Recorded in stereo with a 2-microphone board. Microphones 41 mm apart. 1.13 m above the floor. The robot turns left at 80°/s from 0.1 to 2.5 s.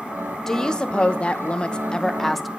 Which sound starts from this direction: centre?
A woman speaking, at 0.5 s.